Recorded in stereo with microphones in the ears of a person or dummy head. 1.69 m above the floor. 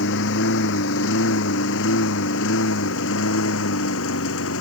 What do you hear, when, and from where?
0.0 s a lawn mower: 65° left (ahead or behind); by 4.6 s 75° left (ahead or behind)